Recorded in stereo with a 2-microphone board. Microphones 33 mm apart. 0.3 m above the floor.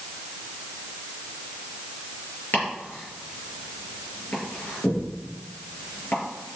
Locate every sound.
2.5 s chopping: 75° left (ahead or behind), 5.5 m